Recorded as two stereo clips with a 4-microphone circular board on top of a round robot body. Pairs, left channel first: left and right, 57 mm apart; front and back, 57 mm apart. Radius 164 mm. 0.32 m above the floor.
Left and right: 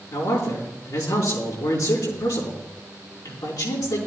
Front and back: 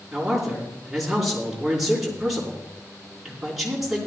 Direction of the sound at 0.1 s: 95° left.